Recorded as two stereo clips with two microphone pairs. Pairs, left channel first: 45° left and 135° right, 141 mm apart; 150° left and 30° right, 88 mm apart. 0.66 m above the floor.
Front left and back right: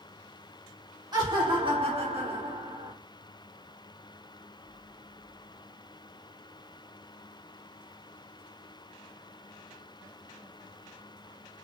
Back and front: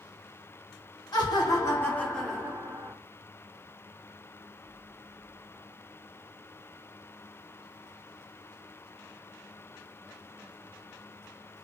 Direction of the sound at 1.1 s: 170° left.